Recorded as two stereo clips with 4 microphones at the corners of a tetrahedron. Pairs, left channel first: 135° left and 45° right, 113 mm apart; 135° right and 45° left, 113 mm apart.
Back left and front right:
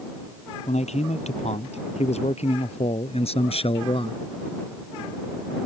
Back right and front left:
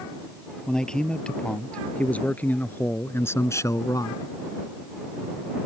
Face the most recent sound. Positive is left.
turn(degrees=170)